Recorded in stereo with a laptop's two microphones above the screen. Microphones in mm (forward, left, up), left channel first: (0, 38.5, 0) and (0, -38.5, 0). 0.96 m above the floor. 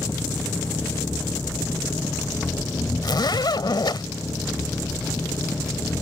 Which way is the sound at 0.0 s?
35° left (ahead or behind).